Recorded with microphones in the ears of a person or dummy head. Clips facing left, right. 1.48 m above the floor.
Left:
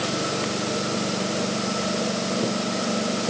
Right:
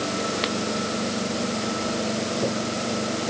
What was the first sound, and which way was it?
Only background noise.